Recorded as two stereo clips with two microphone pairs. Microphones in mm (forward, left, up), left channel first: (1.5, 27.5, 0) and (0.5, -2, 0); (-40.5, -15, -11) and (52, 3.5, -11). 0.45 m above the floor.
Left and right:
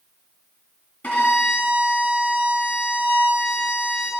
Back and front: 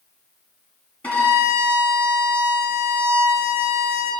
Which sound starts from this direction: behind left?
A violin, at 1.0 s.